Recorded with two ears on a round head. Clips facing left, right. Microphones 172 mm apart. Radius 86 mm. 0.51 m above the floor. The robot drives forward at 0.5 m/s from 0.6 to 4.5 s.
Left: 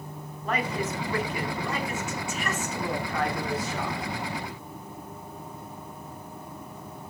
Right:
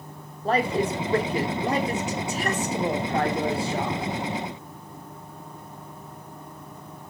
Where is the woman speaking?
25° right (ahead or behind), 1.4 m.